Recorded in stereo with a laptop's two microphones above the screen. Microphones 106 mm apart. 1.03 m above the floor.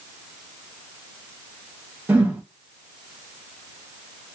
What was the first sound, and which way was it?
A whoosh, 20° right (ahead or behind).